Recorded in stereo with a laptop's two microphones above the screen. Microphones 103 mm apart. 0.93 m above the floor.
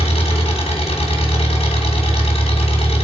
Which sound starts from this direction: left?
An engine running, at 0.0 s.